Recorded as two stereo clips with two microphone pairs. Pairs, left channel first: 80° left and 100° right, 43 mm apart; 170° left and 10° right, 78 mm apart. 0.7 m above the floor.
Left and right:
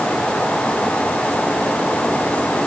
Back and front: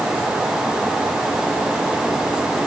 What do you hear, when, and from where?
Only background noise.